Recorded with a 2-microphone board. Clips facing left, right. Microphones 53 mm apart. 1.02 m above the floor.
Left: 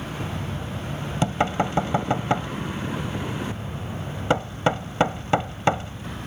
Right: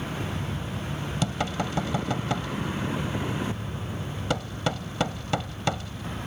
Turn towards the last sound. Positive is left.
turn(degrees=30)  # may be behind; listen again after turning